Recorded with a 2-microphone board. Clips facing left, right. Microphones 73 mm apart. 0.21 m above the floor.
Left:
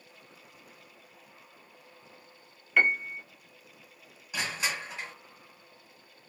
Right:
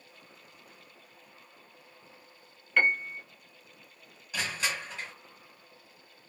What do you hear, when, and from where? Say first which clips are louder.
2.8 s a piano: left 1 dB; 5° left (ahead or behind), 0.7 m
4.3 s crushing: even; 10° left (ahead or behind), 1.6 m